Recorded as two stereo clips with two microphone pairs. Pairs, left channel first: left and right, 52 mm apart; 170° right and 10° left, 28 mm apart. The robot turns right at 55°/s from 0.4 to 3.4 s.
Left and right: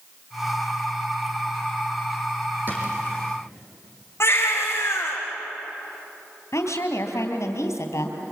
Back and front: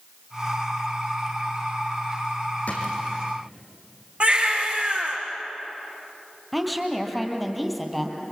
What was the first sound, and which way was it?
A drawer, 140° right.